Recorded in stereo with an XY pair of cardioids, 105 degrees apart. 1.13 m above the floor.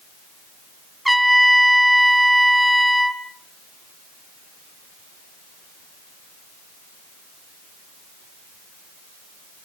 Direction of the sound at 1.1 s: Straight ahead.